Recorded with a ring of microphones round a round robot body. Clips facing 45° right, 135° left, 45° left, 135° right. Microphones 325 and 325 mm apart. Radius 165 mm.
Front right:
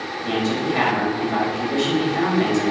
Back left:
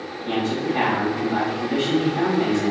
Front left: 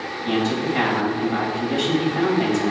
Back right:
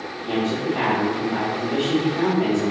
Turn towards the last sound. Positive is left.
turn(degrees=-5)